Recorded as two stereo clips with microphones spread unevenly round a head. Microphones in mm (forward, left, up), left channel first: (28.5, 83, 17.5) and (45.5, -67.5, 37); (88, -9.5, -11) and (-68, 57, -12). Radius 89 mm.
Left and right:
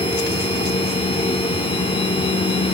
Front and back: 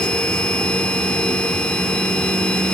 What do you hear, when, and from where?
0.0 s a machine running: 55° left, 1.5 m